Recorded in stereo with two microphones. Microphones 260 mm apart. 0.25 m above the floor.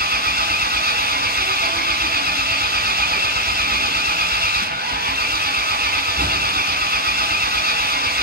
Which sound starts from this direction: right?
An engine running, at 0.0 s.